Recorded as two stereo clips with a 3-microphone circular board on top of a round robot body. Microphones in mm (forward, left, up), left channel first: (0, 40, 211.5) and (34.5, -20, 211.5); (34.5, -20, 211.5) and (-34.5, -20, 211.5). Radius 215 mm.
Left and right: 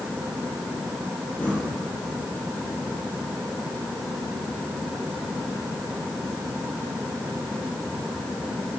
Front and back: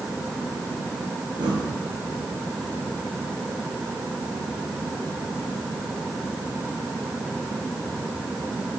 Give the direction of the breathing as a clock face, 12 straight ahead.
6 o'clock.